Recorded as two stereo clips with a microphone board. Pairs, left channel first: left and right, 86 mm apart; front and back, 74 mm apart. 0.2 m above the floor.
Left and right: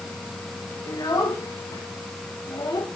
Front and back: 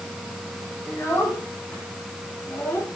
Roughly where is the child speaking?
Ahead left.